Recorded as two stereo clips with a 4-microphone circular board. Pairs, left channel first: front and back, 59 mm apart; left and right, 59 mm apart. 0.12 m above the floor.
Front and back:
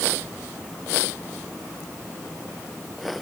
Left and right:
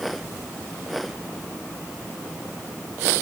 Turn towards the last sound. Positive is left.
No sound to turn to.